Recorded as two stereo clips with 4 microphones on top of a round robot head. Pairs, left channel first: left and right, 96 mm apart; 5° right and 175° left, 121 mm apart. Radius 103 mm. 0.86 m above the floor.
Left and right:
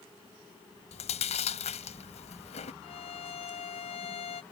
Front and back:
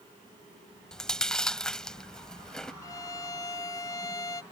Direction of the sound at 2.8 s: 55° left.